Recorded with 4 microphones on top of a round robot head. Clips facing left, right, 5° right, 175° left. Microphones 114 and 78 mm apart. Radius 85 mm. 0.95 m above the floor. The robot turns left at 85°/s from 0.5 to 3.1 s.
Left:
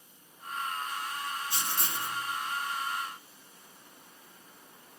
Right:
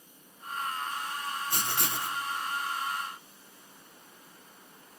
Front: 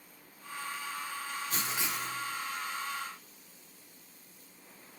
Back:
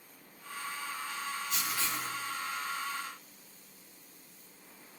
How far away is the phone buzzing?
I don't hear a phone buzzing.